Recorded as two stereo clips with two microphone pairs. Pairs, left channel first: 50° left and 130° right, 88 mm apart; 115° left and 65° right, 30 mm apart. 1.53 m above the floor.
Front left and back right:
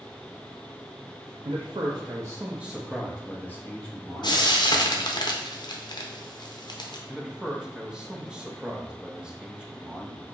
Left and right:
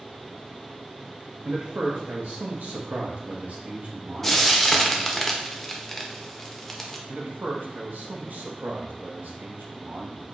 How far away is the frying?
About 0.6 m.